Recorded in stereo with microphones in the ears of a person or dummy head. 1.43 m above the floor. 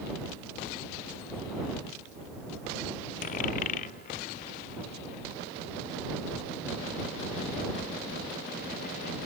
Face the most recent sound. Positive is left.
turn(degrees=55)  # may be behind; listen again after turning